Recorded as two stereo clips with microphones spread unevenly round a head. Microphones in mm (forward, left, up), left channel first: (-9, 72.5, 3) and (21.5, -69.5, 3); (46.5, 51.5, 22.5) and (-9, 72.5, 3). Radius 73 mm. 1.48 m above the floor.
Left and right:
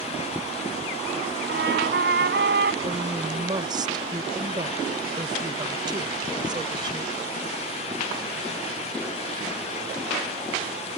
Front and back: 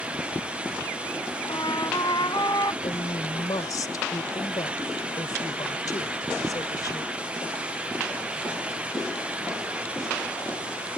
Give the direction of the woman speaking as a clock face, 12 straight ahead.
1 o'clock.